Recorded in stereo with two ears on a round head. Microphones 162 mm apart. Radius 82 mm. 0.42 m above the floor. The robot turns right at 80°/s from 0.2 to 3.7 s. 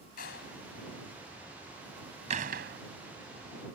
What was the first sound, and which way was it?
A door slam, 50° left (ahead or behind).